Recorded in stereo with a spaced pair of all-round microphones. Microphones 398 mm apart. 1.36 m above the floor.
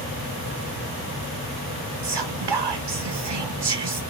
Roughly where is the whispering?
Right.